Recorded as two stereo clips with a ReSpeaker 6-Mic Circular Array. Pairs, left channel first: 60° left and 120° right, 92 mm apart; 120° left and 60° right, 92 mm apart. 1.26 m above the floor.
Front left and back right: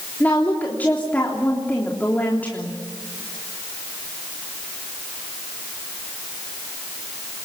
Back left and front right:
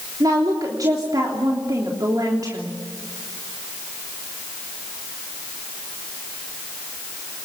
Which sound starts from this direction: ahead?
A woman speaking, at 0.2 s.